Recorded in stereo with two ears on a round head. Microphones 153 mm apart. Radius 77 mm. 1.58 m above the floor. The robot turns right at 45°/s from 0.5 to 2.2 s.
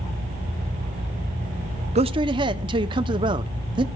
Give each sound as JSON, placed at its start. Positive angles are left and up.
{"t": 1.9, "sound": "a man speaking", "side_deg": -35, "distance_m": 0.6}